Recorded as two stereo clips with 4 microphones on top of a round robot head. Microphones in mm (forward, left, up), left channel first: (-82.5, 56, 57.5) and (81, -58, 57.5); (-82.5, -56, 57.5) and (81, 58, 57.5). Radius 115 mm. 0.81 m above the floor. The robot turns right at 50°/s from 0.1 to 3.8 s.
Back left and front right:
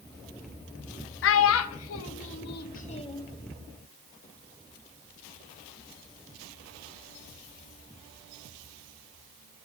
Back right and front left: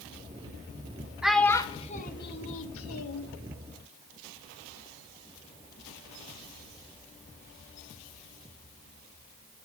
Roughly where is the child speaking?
Behind left.